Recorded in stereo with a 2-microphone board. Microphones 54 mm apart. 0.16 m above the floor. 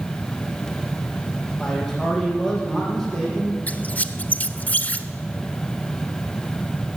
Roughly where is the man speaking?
Centre.